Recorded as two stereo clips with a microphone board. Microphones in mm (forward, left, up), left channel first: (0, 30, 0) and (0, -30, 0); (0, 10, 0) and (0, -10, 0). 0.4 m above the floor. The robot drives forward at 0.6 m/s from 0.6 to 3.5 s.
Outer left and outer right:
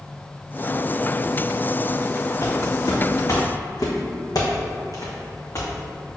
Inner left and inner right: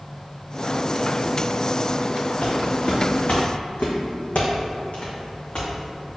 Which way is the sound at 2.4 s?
60° left (ahead or behind).